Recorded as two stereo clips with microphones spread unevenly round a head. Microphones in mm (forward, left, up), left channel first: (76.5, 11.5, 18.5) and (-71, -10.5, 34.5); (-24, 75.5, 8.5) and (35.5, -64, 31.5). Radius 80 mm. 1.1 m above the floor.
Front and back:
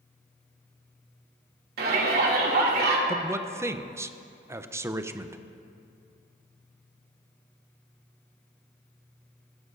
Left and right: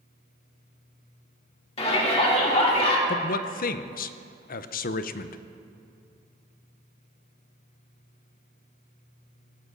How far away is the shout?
About 2.5 m.